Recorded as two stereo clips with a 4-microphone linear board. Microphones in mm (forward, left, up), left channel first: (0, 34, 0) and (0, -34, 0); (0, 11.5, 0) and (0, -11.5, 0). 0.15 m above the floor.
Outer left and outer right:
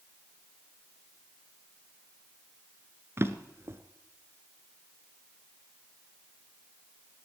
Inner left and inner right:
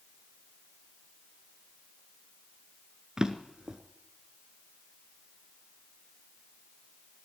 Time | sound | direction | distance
3.2 | a drawer | 40° right (ahead or behind) | 0.9 m